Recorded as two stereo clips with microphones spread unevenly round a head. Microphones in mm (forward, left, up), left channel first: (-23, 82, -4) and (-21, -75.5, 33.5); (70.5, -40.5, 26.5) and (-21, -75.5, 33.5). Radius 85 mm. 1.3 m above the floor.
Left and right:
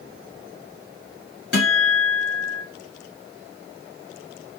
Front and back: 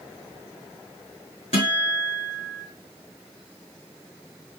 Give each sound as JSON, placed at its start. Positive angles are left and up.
{"t": 1.5, "sound": "a guitar", "azimuth_deg": 60, "distance_m": 2.5}